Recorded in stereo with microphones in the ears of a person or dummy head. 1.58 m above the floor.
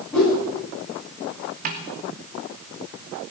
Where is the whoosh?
Centre (ahead or behind), 9 m.